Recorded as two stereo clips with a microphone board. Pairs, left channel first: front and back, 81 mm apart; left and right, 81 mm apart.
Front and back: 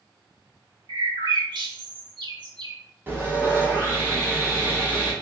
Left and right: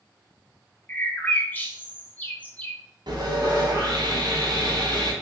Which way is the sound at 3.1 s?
120° right.